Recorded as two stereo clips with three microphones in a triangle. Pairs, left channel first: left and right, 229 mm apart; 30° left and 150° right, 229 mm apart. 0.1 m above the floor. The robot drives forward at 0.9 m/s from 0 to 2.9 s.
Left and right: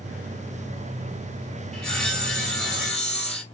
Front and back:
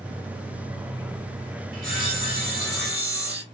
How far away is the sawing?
About 2.5 m.